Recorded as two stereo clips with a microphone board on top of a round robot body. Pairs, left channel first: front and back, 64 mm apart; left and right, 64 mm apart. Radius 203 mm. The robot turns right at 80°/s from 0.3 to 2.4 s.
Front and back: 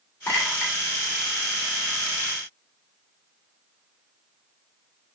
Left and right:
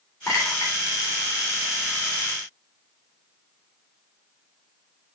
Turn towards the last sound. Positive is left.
turn(degrees=-145)